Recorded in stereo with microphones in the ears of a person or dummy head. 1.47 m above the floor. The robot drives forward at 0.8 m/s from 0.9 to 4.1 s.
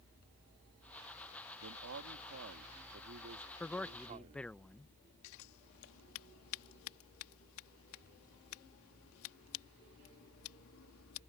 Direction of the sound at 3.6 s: 5° left (ahead or behind).